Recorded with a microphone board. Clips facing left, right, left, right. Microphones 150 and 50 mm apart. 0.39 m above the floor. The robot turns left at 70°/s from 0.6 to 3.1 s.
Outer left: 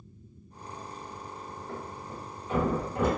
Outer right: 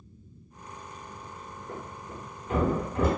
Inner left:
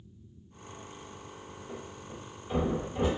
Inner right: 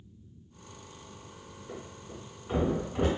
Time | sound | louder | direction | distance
1.7 | a thud | outer right 1 dB, inner right 1 dB | 10° right (ahead or behind) | 1.2 m